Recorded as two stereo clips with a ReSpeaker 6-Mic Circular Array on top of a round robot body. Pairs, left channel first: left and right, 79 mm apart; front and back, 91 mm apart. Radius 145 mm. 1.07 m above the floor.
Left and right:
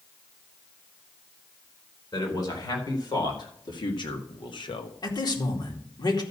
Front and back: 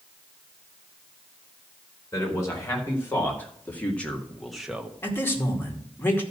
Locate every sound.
2.1 s a man speaking: 60° left, 4 m; by 4.9 s 105° left, 1.2 m
5.0 s a man speaking: 65° left, 2.5 m